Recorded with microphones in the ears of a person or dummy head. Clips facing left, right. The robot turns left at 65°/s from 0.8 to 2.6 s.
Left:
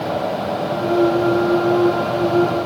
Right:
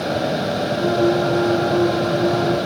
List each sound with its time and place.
Only background noise.